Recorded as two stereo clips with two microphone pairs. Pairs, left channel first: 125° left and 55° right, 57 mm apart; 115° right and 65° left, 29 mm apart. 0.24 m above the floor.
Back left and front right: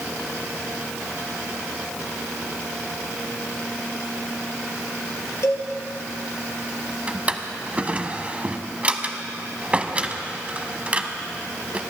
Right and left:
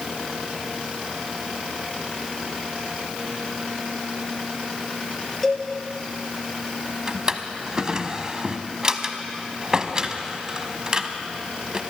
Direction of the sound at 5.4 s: 160° left.